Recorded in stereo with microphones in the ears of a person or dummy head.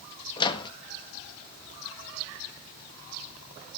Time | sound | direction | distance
0.4 | a microwave | 25° left (ahead or behind) | 1.3 m